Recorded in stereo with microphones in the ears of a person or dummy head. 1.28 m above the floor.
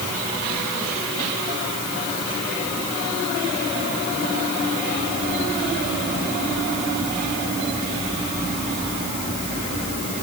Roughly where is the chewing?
No chewing in this recording.